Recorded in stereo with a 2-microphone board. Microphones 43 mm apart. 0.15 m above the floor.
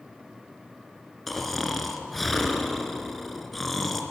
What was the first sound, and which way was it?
Snoring, 5° left (ahead or behind).